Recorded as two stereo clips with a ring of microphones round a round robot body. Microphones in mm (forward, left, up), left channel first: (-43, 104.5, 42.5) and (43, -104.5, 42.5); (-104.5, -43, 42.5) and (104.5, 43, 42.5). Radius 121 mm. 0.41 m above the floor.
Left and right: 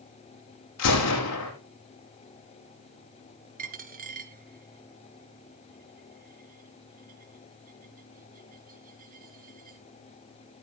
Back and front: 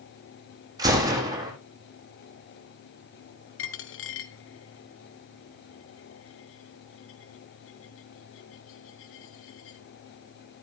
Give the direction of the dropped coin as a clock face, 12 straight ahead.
4 o'clock.